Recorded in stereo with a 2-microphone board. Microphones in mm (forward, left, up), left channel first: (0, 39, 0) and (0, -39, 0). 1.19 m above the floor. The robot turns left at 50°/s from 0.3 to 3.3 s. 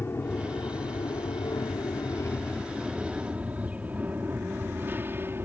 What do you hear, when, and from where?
0.0 s an aircraft: 30° left (ahead or behind); by 5.5 s 30° right (ahead or behind)